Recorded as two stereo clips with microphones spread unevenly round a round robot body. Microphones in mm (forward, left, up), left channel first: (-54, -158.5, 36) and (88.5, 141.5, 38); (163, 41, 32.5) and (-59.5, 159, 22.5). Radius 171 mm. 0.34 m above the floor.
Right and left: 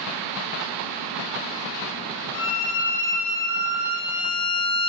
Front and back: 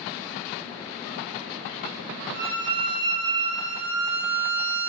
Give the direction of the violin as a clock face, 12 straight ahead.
5 o'clock.